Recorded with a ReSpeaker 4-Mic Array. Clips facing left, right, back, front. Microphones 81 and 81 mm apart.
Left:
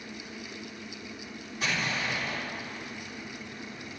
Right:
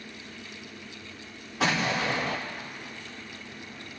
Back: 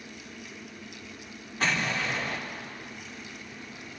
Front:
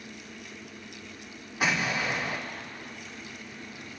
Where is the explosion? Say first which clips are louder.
Right 5 dB, front 1 dB; 80° right, 2 m.